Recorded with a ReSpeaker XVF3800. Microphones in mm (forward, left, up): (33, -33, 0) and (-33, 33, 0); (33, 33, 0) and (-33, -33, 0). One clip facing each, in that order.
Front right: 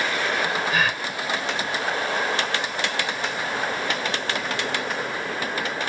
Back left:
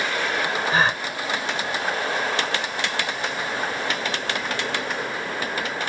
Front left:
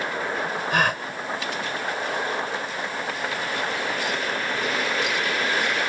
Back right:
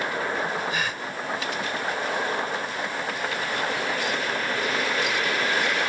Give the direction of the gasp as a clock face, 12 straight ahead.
9 o'clock.